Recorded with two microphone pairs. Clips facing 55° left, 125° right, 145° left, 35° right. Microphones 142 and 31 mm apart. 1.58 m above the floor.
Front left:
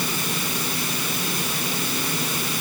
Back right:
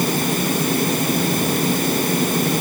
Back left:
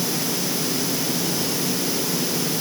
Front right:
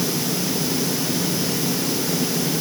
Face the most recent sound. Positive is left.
No sound to turn to.